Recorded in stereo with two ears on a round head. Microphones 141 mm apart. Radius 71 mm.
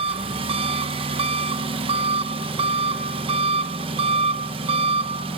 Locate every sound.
0.0 s an engine running: 35° right (ahead or behind), 1.2 m